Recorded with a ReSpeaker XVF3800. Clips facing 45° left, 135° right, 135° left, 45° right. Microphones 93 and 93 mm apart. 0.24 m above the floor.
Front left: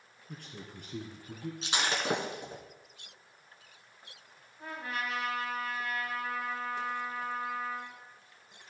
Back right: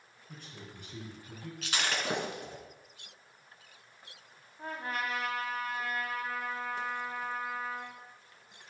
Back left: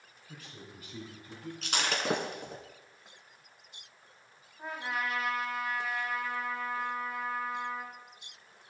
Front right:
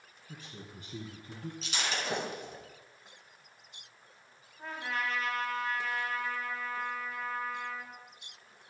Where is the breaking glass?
110° left, 1.6 m.